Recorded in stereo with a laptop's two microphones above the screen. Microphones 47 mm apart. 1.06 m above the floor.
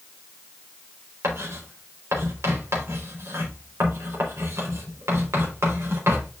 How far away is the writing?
About 3.5 m.